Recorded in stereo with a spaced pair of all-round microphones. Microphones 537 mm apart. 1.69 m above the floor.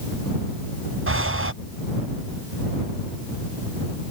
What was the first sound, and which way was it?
Breathing, 25° right (ahead or behind).